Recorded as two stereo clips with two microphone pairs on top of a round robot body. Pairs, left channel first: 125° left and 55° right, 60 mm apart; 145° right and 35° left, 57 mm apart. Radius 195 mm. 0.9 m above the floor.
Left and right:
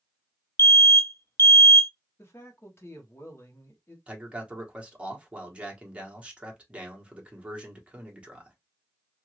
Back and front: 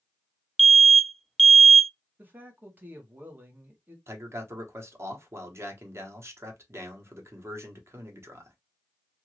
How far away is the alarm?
About 0.6 m.